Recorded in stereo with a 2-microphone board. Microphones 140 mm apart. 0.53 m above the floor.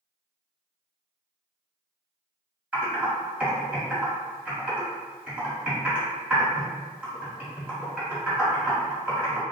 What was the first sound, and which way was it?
Typing on a keyboard, 10° right (ahead or behind).